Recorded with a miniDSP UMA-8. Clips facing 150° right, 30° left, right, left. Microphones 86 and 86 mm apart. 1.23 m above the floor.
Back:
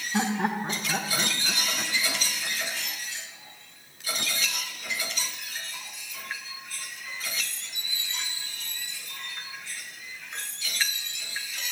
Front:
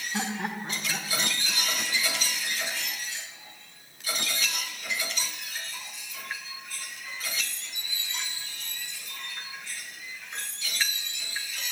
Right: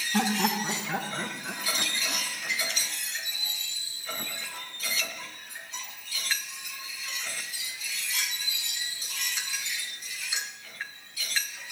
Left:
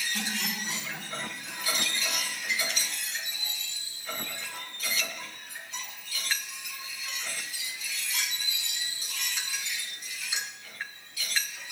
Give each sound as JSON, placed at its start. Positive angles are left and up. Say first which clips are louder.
{"t": 0.1, "sound": "laughter", "louder": "back 6 dB, right 9 dB", "azimuth_deg": -80, "distance_m": 1.4}